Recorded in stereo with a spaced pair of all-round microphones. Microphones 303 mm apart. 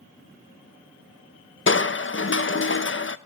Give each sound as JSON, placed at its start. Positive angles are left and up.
{"t": 1.7, "sound": "crushing", "side_deg": 40, "distance_m": 0.7}